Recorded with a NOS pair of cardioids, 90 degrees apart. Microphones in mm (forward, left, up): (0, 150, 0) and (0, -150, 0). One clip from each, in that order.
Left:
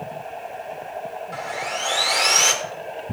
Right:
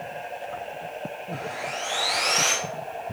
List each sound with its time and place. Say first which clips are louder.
1.3 s sawing: left 4 dB; 65° left, 3.5 m